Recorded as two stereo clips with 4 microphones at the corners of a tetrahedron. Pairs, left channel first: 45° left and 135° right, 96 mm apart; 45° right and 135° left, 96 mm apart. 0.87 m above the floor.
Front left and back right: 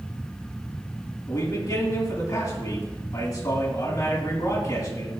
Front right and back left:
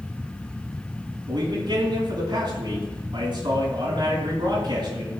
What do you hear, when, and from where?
1.3 s a man speaking: 95° left, 7 m